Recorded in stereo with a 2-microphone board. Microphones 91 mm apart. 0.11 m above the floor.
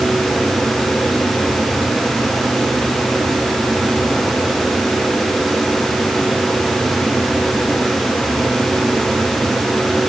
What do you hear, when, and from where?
Only background noise.